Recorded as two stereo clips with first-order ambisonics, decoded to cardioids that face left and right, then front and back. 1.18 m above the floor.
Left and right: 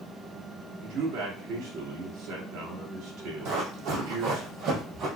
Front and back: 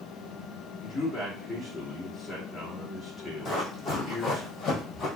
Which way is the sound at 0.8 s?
90° right.